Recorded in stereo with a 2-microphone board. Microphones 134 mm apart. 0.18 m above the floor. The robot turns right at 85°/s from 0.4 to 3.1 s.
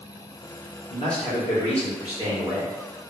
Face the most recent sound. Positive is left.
turn(degrees=-80)